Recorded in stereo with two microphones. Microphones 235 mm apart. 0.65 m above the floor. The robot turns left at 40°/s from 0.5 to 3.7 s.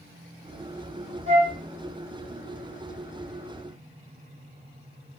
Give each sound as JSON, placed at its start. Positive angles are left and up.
{"t": 1.3, "sound": "a flute", "side_deg": -60, "distance_m": 1.4}